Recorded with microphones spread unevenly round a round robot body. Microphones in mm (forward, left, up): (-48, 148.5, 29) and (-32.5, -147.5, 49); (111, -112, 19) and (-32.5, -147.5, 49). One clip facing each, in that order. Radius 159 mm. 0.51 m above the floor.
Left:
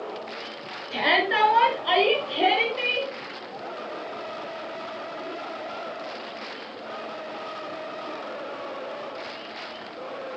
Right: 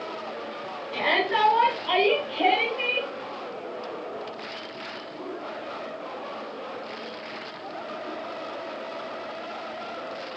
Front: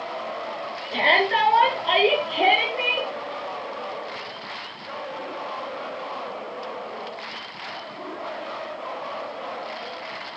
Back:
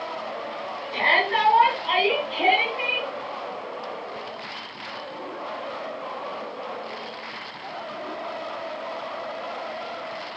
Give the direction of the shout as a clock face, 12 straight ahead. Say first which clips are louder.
Left 1 dB, front 3 dB; 10 o'clock.